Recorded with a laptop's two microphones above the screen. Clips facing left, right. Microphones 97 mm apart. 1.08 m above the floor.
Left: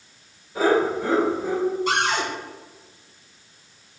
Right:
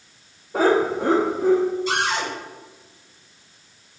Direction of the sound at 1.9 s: 55° left (ahead or behind).